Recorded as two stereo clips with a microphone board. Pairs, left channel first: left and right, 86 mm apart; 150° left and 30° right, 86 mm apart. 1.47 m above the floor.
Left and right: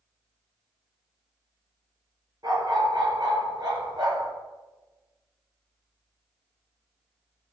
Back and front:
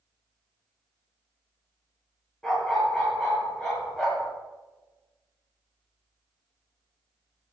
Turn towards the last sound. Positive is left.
turn(degrees=-130)